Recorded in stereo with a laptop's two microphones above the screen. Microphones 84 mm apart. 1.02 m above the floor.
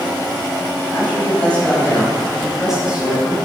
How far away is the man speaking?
About 6 m.